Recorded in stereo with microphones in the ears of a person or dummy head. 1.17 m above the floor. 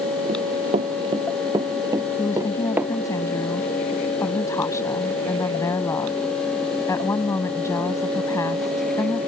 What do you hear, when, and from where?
0.3 s running footsteps: 35° right (ahead or behind); by 2.9 s 10° right (ahead or behind)
2.2 s a woman speaking: 15° left (ahead or behind)